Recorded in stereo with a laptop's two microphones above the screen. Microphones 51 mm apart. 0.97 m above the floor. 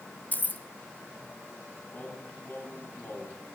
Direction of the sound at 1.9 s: 40° left (ahead or behind).